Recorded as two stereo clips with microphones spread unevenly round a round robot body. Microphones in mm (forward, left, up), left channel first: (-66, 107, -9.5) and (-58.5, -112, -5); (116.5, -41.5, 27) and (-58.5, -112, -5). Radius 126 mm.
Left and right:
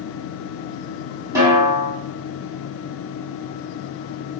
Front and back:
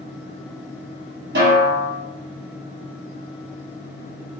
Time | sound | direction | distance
1.4 | a snare drum | 160° right | 1.7 m